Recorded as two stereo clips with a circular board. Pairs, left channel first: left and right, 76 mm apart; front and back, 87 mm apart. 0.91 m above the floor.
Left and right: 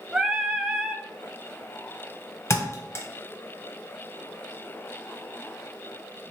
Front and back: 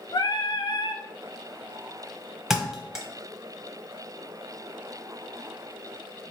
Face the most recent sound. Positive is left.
turn(degrees=100)